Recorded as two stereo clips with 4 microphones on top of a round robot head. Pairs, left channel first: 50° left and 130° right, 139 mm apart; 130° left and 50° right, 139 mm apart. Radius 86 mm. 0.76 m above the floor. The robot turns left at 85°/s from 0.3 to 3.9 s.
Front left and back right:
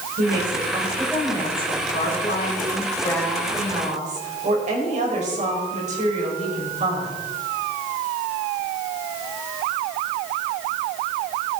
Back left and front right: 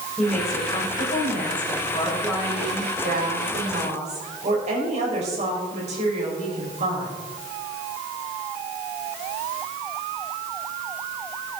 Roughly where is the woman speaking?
Behind right.